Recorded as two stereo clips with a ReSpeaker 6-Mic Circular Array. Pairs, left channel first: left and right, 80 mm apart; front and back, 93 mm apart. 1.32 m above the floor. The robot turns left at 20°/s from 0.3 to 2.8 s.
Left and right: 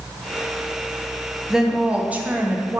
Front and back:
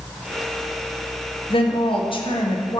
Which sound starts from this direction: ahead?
A woman speaking, at 1.5 s.